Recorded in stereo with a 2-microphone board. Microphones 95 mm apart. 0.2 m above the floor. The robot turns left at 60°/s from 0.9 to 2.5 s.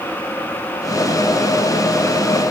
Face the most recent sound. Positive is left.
No sound to turn to.